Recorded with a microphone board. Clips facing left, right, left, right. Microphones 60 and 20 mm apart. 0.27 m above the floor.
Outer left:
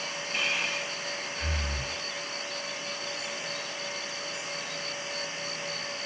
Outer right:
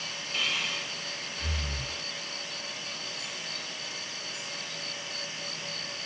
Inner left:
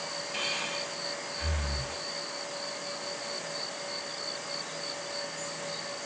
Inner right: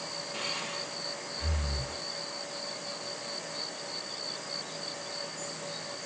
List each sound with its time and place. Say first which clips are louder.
0.3 s breathing: outer left 2 dB, inner left 3 dB; 35° left (ahead or behind), 1.6 m